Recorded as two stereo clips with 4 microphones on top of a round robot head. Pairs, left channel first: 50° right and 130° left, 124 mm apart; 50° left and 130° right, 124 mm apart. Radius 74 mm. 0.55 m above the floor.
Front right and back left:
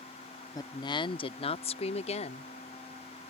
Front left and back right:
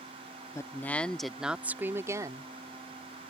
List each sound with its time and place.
0.6 s a woman speaking: 5° right; by 2.5 s 70° right